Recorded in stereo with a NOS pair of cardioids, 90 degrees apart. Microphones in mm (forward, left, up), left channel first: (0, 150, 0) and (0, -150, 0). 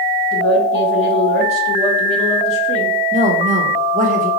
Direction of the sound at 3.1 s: 25° right.